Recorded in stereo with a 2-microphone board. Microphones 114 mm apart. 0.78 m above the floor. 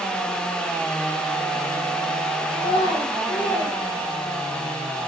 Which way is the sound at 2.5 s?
55° left (ahead or behind).